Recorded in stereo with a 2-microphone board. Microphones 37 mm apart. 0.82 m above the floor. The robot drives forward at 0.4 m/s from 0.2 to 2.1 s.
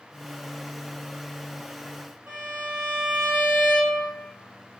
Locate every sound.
2.3 s a violin: 40° right (ahead or behind), 1.6 m